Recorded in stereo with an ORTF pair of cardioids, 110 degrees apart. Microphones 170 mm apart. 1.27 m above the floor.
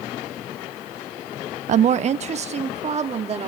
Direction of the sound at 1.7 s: 45° right.